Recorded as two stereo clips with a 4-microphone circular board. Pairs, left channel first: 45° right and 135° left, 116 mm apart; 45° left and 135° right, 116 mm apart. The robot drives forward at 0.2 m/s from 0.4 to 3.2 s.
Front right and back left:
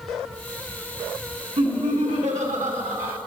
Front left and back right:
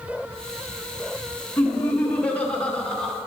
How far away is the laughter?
About 1.5 m.